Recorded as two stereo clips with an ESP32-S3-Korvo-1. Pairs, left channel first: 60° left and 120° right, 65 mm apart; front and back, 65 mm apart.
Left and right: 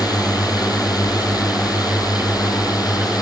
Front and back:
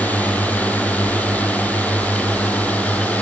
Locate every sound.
0.0 s a drone: 65° left